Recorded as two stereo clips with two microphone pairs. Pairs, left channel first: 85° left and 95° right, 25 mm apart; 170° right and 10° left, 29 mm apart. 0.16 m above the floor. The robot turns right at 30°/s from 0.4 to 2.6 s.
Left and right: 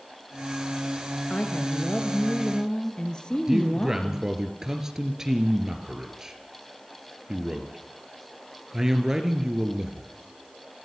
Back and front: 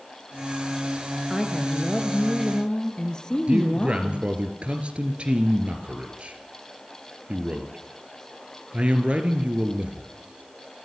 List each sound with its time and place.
1.3 s a woman speaking: 90° left, 2 m; by 4.3 s 130° left, 2 m
3.5 s a man speaking: 30° right, 3 m